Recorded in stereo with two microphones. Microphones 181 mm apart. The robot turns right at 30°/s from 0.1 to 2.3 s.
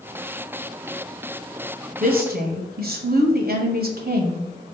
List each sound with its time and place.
2.0 s a woman speaking: 50° right (ahead or behind), 0.8 m; by 4.5 s 60° right (ahead or behind), 0.8 m